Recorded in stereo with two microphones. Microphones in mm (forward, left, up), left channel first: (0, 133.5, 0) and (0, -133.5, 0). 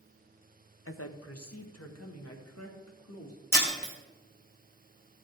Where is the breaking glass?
65° left (ahead or behind), 2.5 m.